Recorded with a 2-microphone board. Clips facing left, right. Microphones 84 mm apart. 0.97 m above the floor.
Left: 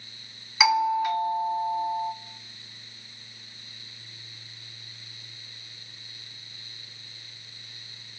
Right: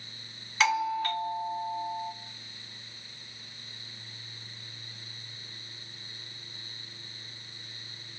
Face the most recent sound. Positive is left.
turn(degrees=10)  # may be behind; listen again after turning